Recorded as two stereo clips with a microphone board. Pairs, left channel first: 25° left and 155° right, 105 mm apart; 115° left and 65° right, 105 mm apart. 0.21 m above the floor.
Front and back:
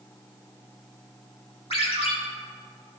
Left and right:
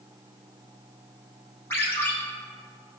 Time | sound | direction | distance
1.7 | a ringtone | 45° left | 2.5 m